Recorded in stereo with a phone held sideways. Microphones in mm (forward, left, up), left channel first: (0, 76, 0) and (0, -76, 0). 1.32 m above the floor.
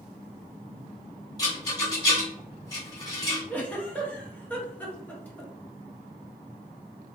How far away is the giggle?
About 0.7 m.